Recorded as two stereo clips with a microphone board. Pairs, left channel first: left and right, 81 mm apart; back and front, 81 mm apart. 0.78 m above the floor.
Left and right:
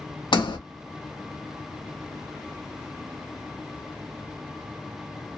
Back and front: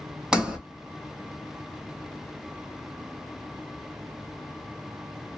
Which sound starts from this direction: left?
A sliding door, at 0.3 s.